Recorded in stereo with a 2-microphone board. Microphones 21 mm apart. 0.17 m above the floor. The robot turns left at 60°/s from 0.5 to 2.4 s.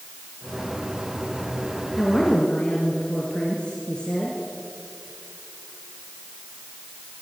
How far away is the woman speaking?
About 3 m.